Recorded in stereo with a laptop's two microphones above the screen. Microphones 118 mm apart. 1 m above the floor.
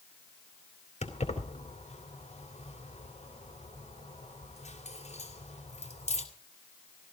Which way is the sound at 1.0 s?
90° left.